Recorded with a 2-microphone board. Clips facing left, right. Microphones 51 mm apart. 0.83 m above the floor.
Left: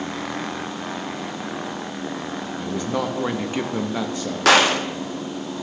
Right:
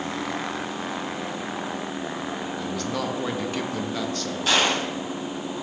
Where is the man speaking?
15° left (ahead or behind), 0.6 m.